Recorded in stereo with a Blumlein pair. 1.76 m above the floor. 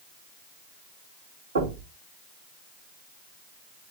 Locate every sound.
1.6 s knocking: 65° right, 4.5 m